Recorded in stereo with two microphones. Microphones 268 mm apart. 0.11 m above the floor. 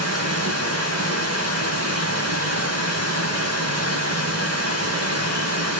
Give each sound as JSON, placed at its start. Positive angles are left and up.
{"t": 0.0, "sound": "running water", "side_deg": -75, "distance_m": 5.0}